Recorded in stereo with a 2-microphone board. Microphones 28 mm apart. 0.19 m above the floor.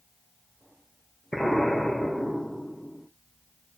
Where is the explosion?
10° left (ahead or behind), 2 m.